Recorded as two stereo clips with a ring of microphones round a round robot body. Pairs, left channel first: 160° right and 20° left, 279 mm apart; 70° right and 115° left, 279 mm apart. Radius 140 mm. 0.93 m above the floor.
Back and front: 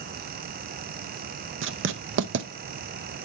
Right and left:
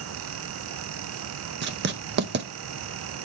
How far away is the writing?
About 0.7 m.